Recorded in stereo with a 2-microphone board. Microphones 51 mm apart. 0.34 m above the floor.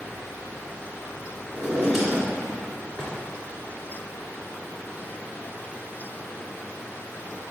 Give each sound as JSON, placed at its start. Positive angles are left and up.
{"t": 1.5, "sound": "a drawer", "side_deg": 0, "distance_m": 2.0}